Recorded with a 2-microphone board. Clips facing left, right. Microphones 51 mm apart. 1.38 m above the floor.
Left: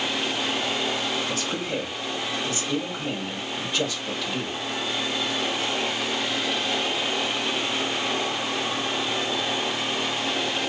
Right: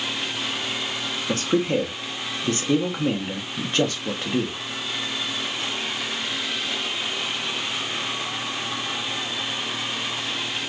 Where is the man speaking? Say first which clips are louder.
Right 6 dB; 40° right (ahead or behind), 0.9 m.